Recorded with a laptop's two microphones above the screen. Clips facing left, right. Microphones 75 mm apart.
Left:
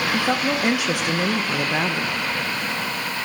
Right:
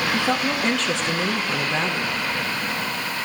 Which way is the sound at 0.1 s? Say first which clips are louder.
Left 1 dB; 10° left (ahead or behind).